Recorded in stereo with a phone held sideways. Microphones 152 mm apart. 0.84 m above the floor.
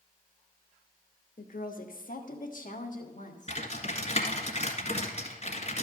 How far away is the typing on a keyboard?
About 1.7 m.